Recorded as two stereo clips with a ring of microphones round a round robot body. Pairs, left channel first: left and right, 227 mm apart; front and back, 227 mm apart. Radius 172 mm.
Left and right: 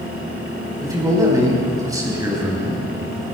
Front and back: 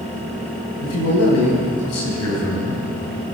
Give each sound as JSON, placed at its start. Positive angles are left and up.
{"t": 0.8, "sound": "a man speaking", "azimuth_deg": -15, "distance_m": 5.0}